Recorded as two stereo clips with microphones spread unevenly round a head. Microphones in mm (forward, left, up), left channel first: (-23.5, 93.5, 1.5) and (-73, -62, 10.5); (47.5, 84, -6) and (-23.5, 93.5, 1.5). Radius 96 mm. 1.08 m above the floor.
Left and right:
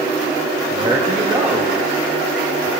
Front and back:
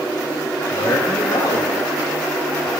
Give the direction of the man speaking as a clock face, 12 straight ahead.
1 o'clock.